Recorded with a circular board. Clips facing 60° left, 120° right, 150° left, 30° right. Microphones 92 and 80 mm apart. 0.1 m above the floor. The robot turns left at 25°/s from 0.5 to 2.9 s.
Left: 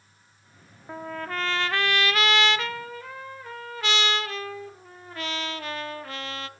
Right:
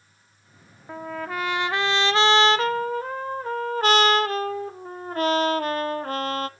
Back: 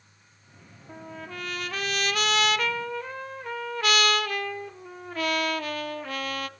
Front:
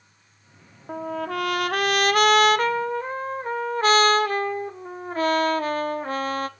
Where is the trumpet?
30° right, 0.7 m; by 6.5 s 80° right, 0.7 m.